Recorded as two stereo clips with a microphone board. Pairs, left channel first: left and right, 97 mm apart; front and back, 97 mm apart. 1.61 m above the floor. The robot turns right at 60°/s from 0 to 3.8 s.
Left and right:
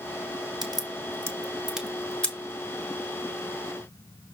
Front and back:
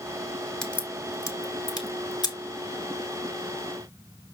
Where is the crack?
80° right, 1.7 m; by 2.4 s 25° left, 1.7 m.